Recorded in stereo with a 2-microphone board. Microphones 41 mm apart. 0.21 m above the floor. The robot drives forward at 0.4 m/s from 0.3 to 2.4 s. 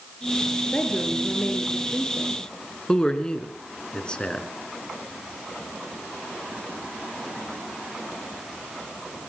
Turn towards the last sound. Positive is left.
turn(degrees=20)  # may be behind; listen again after turning